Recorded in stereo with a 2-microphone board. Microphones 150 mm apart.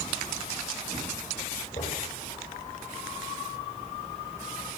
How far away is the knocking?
About 10 m.